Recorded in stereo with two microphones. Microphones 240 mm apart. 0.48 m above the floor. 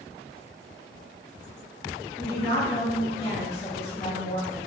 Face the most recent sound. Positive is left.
turn(degrees=25)  # may be behind; listen again after turning